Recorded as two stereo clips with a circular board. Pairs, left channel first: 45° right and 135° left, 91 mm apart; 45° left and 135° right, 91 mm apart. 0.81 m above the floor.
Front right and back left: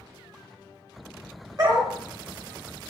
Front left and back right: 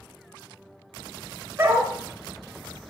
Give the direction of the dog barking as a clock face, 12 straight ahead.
6 o'clock.